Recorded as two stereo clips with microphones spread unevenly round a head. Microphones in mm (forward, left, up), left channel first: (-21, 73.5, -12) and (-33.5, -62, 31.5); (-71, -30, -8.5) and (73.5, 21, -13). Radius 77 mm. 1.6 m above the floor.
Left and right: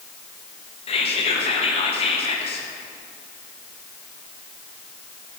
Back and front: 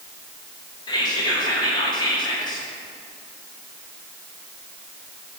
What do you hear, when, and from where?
0.9 s whispering: 135° left, 1.3 m